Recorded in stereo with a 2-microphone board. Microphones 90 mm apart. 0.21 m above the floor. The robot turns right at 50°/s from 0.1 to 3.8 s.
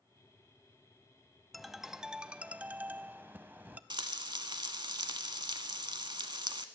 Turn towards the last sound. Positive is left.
turn(degrees=-55)  # may be behind; listen again after turning